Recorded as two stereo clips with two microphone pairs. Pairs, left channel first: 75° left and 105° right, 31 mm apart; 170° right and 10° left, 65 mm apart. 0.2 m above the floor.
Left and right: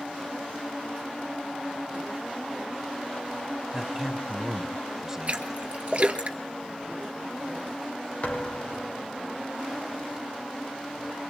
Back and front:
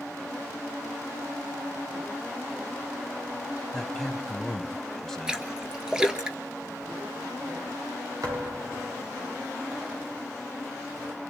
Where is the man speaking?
105° right, 1.0 m.